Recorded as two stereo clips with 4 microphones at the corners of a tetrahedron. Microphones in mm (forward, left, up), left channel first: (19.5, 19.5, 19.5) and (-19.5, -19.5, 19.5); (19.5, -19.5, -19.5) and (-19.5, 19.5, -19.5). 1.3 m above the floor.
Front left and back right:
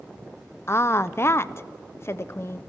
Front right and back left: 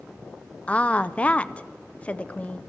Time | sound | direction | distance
0.7 | a woman speaking | 15° left | 0.5 m